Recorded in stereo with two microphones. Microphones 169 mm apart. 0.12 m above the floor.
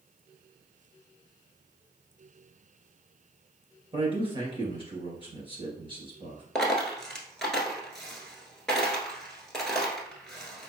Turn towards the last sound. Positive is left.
turn(degrees=5)  # may be behind; listen again after turning